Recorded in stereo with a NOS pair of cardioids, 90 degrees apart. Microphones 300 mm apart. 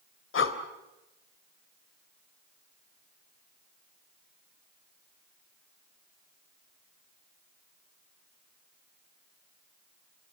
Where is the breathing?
50° left, 3 m.